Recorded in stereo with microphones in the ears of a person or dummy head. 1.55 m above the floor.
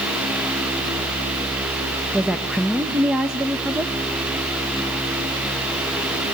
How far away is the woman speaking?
About 0.5 m.